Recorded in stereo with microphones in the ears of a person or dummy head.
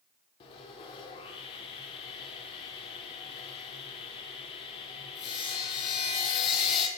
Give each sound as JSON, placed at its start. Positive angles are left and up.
{"t": 0.4, "sound": "sawing", "side_deg": 30, "distance_m": 0.6}